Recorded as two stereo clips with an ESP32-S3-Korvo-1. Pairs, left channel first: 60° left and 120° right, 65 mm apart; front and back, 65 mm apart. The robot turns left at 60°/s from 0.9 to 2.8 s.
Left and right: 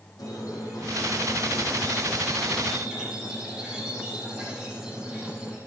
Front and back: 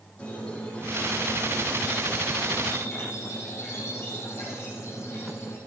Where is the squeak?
70° left, 4.5 m; by 5.6 s 45° right, 4.5 m.